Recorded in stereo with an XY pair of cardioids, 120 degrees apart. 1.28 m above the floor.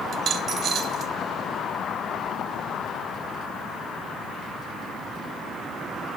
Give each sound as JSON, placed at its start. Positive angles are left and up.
{"t": 0.1, "sound": "a dropped coin", "azimuth_deg": -60, "distance_m": 3.0}